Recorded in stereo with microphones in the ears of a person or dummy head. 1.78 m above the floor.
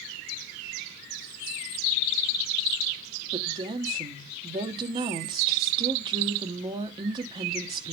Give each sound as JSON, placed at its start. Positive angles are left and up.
{"t": 3.3, "sound": "a woman speaking", "side_deg": -25, "distance_m": 1.3}